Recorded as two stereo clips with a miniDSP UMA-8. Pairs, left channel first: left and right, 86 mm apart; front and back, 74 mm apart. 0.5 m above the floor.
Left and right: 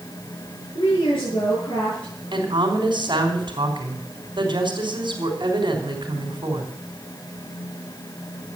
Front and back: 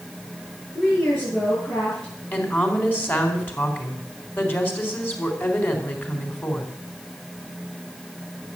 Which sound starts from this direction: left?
A woman speaking, at 0.8 s.